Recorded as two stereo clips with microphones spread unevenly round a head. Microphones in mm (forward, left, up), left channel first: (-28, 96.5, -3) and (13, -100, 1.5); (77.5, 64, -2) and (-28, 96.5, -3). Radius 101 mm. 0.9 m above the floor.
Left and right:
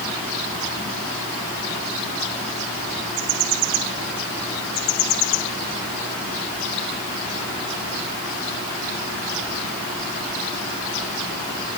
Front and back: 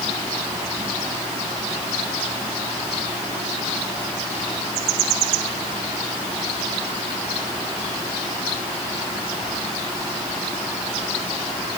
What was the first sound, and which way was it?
Only background noise.